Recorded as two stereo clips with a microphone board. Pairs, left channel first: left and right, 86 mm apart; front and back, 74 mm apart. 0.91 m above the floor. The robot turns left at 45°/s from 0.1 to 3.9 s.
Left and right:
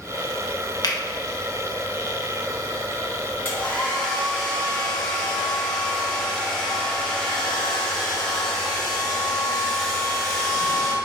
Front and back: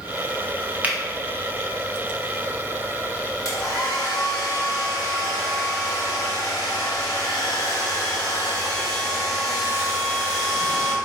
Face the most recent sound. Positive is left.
turn(degrees=5)